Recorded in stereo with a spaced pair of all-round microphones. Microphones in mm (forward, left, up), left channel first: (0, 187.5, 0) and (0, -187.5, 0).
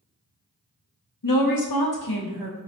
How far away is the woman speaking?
About 0.5 m.